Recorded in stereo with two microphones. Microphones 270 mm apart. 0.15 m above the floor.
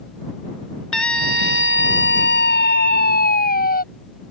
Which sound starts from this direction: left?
A scream, at 0.9 s.